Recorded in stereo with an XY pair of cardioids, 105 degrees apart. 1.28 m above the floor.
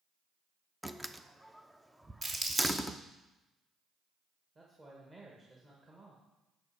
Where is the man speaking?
30° right, 1.7 m.